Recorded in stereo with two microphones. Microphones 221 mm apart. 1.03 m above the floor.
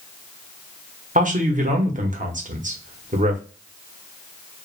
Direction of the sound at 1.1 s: 35° right (ahead or behind).